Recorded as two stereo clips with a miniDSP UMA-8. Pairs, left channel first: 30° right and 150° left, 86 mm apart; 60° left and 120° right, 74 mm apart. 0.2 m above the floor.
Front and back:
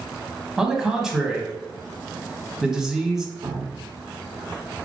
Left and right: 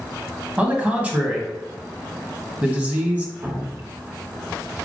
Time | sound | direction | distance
0.6 | a man speaking | 140° right | 1.0 m
3.4 | dripping | straight behind | 1.0 m